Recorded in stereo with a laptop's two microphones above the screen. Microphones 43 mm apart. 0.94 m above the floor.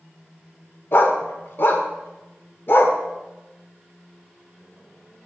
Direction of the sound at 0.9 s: 55° left (ahead or behind).